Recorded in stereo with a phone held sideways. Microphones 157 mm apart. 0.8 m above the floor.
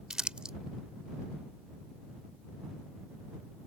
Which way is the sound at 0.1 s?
5° right (ahead or behind).